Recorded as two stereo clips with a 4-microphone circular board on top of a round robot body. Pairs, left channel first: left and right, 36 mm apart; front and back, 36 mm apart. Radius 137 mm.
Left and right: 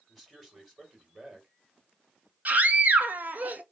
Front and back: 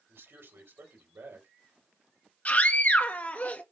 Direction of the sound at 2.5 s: 45° right.